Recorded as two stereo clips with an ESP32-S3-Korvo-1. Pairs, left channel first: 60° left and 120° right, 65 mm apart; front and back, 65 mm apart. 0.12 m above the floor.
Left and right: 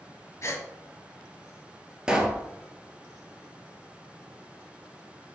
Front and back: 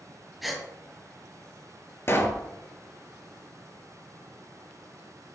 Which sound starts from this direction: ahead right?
A pop, at 2.1 s.